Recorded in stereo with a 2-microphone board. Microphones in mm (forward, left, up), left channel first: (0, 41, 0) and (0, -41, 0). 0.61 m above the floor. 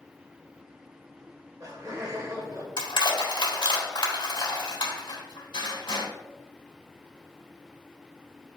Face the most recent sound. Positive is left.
turn(degrees=70)  # may be behind; listen again after turning